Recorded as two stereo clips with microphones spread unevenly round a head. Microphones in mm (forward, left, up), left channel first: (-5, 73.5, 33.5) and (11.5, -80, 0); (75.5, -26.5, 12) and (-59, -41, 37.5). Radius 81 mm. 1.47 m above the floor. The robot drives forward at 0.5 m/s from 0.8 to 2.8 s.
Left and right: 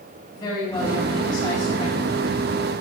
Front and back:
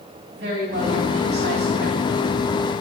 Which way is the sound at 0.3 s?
160° left.